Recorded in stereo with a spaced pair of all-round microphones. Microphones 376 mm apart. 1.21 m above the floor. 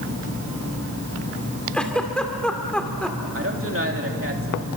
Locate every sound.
1.7 s a giggle: 5° left (ahead or behind), 2.5 m
3.3 s a woman speaking: 35° right (ahead or behind), 3 m